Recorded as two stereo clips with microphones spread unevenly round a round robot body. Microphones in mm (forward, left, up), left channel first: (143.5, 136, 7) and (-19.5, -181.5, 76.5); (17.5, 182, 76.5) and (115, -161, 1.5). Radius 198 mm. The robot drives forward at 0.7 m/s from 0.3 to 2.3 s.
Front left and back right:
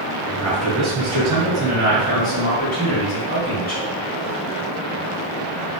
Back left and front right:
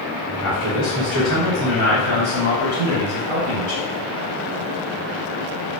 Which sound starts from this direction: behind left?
A man speaking, at 0.4 s.